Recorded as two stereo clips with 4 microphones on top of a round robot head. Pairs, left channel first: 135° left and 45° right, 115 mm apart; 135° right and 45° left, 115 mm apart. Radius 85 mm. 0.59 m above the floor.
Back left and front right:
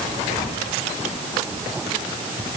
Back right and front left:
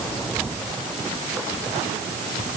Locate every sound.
Only background noise.